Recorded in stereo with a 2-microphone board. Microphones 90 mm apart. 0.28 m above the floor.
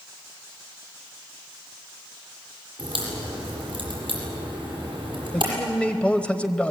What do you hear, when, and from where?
2.8 s a crack: 60° right (ahead or behind), 7.5 m
5.3 s a man speaking: 15° left (ahead or behind), 0.9 m